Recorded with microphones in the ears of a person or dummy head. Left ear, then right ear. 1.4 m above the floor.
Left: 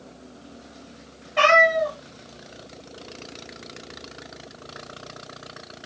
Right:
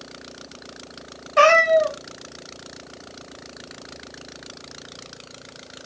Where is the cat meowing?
10° right (ahead or behind), 0.6 m.